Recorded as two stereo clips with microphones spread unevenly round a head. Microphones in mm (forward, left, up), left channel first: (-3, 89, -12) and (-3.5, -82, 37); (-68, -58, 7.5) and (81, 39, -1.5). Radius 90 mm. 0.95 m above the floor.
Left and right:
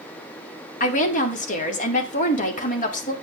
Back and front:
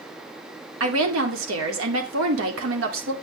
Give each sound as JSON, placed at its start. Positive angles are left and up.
{"t": 0.8, "sound": "a woman speaking", "azimuth_deg": 45, "distance_m": 2.0}